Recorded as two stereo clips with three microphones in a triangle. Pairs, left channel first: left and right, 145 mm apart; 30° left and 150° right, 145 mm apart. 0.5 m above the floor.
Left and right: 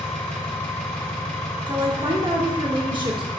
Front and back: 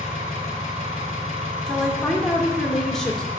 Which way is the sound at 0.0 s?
170° left.